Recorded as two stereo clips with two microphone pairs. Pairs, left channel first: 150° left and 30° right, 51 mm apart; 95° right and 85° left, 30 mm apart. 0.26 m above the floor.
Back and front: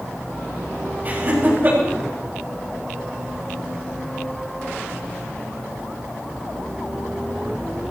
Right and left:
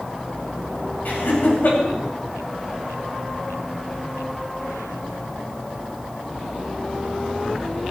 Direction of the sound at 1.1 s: 80° right.